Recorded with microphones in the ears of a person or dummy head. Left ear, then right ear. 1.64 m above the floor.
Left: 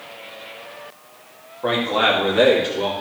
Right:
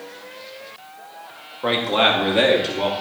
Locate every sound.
1.6 s a man speaking: 15° right (ahead or behind), 2 m; by 2.9 s 20° right (ahead or behind), 2.5 m